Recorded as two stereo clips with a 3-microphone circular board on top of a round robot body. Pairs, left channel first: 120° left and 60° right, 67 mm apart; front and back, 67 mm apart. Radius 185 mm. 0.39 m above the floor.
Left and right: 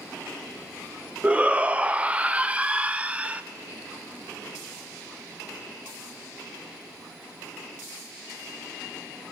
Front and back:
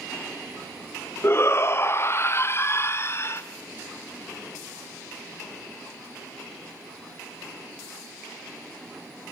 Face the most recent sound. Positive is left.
turn(degrees=0)